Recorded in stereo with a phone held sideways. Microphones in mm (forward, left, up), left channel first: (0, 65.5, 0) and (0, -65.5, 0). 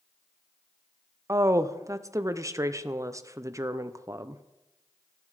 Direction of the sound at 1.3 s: 25° right (ahead or behind).